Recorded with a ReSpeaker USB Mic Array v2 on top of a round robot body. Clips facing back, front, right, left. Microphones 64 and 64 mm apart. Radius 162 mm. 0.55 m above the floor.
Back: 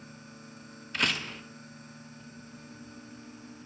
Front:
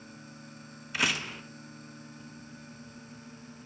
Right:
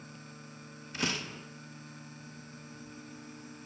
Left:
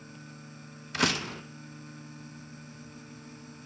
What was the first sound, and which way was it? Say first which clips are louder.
A door slam: even, left 6 dB; 85° left.